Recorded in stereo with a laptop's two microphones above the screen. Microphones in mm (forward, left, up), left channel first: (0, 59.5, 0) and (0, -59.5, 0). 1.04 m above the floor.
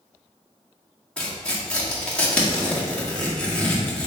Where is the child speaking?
No child speaking in this recording.